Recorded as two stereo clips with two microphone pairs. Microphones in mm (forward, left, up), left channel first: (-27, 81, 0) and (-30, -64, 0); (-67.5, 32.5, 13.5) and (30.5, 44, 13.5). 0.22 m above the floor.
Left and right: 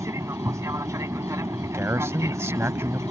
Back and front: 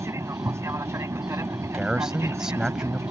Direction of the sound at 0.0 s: 35° right.